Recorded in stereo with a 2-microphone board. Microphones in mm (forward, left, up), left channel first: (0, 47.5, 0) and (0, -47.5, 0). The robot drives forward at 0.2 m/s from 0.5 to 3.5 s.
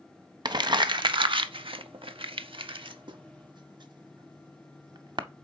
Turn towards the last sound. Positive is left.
turn(degrees=-55)  # may be behind; listen again after turning